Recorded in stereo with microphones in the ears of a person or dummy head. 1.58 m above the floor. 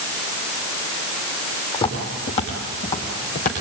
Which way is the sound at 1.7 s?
25° left (ahead or behind).